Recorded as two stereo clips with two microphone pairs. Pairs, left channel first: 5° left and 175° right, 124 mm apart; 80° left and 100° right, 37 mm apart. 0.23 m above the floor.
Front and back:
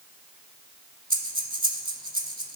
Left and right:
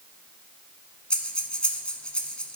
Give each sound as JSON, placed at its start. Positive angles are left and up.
{"t": 1.1, "sound": "breathing", "azimuth_deg": 145, "distance_m": 0.8}